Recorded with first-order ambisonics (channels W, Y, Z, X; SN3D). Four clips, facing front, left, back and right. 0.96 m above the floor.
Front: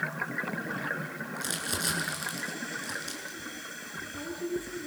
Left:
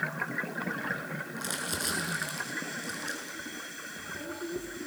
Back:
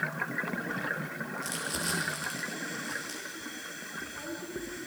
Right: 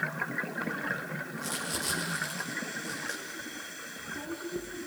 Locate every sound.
1.4 s crumpling: 30° left, 6.5 m